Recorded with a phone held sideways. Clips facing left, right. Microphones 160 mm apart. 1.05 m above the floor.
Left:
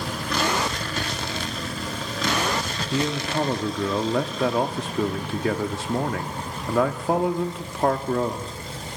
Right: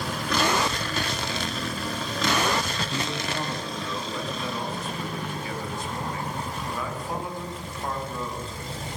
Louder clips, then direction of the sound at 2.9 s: Left 9 dB; 85° left.